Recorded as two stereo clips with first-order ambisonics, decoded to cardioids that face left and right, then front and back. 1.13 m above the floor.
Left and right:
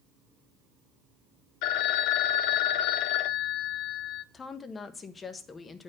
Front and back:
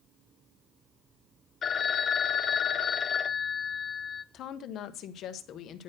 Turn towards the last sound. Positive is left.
turn(degrees=30)